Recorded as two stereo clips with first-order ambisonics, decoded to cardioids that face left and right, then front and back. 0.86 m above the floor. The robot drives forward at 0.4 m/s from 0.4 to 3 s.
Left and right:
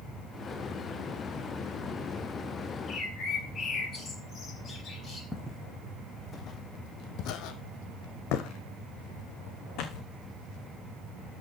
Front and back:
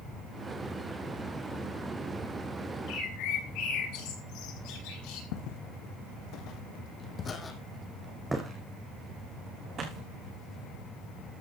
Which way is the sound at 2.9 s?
20° left.